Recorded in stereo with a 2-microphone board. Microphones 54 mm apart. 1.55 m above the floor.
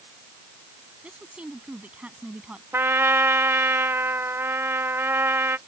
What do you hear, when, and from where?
1.0 s a woman speaking: 20° right (ahead or behind)
2.7 s a trumpet: 45° right (ahead or behind)